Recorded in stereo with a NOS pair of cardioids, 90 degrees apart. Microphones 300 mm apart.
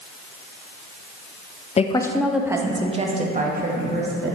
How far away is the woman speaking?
About 0.6 m.